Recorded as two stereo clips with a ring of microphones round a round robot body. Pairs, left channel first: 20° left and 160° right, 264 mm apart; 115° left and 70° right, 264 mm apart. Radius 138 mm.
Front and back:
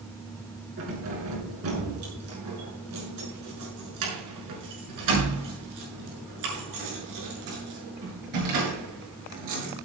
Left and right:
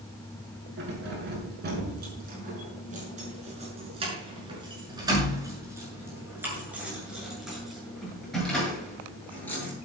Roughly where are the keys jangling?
Behind right.